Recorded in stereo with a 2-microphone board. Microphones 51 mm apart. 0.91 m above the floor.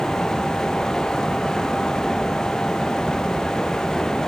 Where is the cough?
I don't hear a cough.